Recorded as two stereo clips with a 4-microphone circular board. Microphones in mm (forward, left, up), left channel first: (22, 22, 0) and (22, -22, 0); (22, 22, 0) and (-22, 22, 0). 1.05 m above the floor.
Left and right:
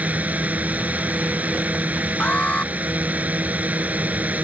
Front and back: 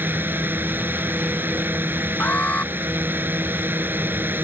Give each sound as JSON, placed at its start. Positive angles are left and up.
{"t": 0.0, "sound": "a drone", "azimuth_deg": -140}
{"t": 2.2, "sound": "an alarm", "azimuth_deg": 40}